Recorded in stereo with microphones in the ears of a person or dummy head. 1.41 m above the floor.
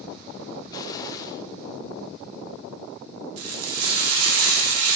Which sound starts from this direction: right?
Frying, at 3.4 s.